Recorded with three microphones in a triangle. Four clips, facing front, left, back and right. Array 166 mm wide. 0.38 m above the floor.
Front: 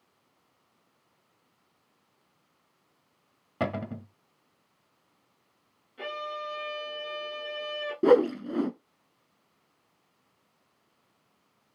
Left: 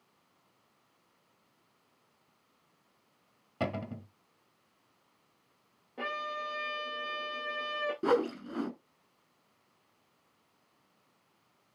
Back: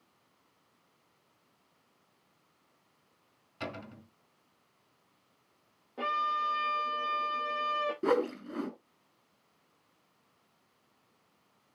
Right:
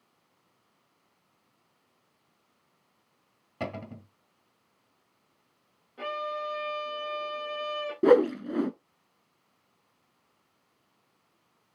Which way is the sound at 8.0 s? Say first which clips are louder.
Right 10 dB, front 11 dB; 55° right.